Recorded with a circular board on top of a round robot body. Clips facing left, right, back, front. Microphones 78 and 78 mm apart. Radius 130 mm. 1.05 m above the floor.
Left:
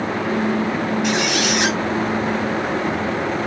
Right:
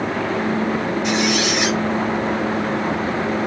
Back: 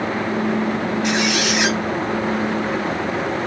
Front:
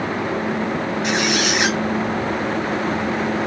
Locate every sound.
1.0 s a squeak: 65° left, 1.0 m